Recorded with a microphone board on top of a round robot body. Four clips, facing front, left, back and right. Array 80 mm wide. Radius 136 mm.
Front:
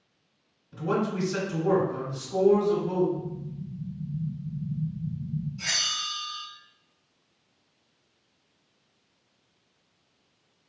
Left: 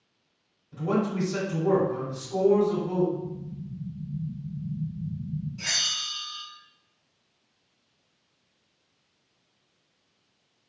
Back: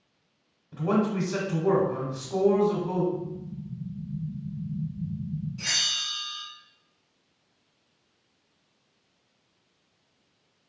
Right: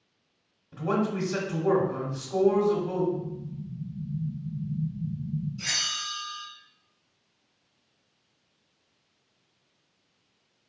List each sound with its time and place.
0.7 s a man speaking: 140° right, 1.4 m
3.1 s an explosion: 135° right, 0.8 m
5.6 s a bell: 140° left, 1.5 m